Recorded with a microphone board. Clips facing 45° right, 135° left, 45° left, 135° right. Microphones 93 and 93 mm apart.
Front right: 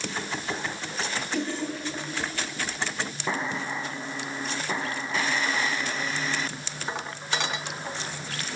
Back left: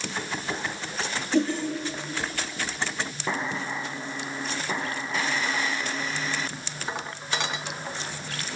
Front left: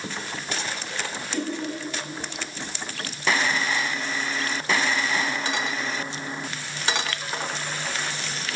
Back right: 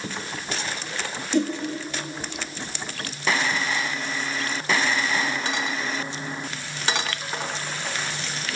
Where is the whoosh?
165° right, 7.5 m.